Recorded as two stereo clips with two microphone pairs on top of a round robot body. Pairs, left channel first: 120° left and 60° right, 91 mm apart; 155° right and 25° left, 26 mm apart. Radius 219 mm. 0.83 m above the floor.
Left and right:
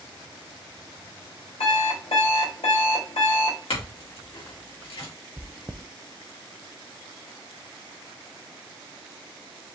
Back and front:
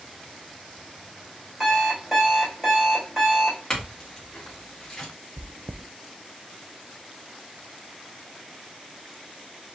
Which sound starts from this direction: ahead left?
Chewing, at 5.4 s.